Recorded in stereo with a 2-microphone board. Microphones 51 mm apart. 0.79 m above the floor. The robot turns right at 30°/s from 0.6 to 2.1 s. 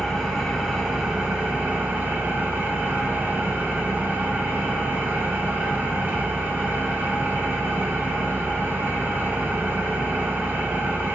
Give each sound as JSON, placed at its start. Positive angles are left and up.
{"t": 0.0, "sound": "an engine running", "azimuth_deg": 180, "distance_m": 1.0}